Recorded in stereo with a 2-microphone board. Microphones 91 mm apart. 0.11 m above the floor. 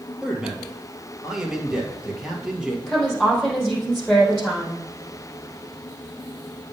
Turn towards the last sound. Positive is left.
turn(degrees=0)  # may be behind; listen again after turning